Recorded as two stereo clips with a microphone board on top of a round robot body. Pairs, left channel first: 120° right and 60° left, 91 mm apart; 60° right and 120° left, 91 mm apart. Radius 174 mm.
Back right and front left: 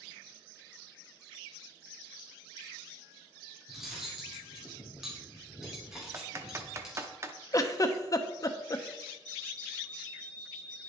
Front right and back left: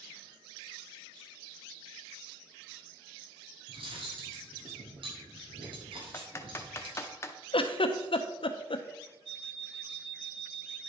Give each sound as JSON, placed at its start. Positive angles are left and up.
{"t": 3.7, "sound": "cutlery clinking", "azimuth_deg": 150, "distance_m": 2.0}
{"t": 6.1, "sound": "typing on a keyboard", "azimuth_deg": 0, "distance_m": 0.8}
{"t": 7.5, "sound": "a giggle", "azimuth_deg": -70, "distance_m": 0.8}
{"t": 9.2, "sound": "an alarm clock", "azimuth_deg": 35, "distance_m": 1.6}